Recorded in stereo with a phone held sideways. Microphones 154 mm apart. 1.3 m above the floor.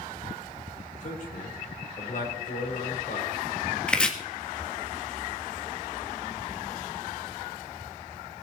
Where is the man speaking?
55° left (ahead or behind), 4 m.